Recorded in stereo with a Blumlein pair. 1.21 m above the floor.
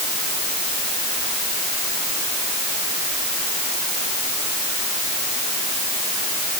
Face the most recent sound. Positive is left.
No sound to turn to.